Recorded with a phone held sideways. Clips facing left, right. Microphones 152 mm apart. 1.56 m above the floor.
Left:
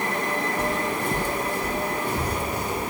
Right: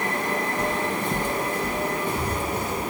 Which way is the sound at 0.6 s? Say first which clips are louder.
Even; 5° left (ahead or behind).